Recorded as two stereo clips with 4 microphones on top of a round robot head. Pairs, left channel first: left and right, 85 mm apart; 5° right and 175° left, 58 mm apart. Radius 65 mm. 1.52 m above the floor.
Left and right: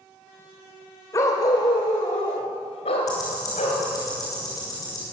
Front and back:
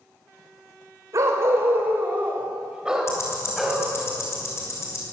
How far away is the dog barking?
About 2.5 m.